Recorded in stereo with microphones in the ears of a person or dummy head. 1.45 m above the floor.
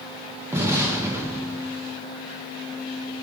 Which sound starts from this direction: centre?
An explosion, at 0.5 s.